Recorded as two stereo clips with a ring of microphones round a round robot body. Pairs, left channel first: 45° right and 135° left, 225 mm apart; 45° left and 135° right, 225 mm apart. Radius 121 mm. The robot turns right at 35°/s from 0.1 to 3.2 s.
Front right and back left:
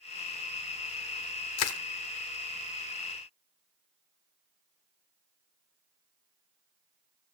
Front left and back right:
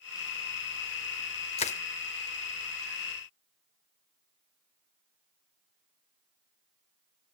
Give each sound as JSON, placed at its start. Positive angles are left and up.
{"t": 1.6, "sound": "crushing", "azimuth_deg": -20, "distance_m": 0.6}